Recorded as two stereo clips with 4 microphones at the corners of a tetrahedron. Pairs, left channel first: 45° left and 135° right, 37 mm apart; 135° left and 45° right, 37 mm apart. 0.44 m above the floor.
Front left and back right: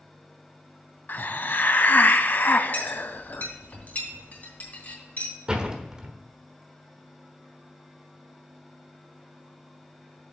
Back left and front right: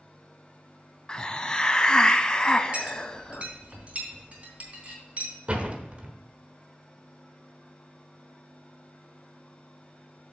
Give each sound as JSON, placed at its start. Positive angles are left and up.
{"t": 1.1, "sound": "a hiss", "azimuth_deg": 70, "distance_m": 0.5}
{"t": 2.7, "sound": "a clink", "azimuth_deg": 5, "distance_m": 3.0}
{"t": 5.5, "sound": "a door slam", "azimuth_deg": -75, "distance_m": 1.1}